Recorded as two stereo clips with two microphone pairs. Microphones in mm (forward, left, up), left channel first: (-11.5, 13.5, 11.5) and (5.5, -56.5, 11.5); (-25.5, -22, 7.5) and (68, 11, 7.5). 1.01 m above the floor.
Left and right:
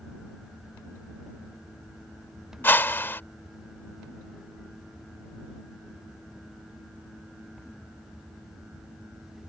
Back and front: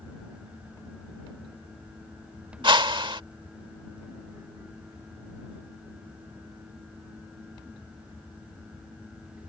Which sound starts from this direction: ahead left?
A whoosh, at 2.6 s.